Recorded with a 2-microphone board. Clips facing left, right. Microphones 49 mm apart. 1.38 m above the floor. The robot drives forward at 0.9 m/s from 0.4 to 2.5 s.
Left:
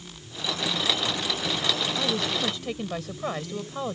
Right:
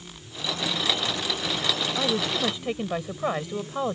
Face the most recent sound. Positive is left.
turn(degrees=-15)  # may be behind; listen again after turning